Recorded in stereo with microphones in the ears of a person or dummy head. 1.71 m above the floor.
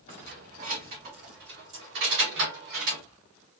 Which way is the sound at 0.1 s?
45° right (ahead or behind).